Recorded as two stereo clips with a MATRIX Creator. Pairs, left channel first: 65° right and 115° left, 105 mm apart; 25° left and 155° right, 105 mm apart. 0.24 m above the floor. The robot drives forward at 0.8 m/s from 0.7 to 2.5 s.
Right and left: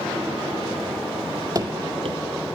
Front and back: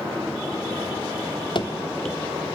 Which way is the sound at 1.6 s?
55° left.